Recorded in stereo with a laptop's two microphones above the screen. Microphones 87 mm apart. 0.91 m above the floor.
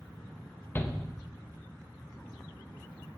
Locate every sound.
0.8 s a shout: 30° left (ahead or behind), 1.1 m